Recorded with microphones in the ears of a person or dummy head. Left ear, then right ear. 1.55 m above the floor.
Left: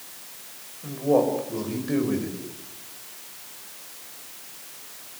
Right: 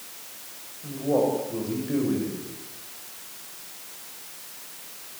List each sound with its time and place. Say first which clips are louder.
0.8 s a man speaking: left 2 dB; 75° left (ahead or behind), 7.5 m